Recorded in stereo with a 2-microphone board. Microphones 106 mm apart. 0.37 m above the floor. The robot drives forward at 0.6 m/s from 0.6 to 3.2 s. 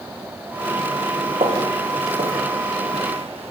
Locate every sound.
1.4 s footsteps: 70° right (ahead or behind), 7.5 m; by 3.5 s 75° right (ahead or behind), 6 m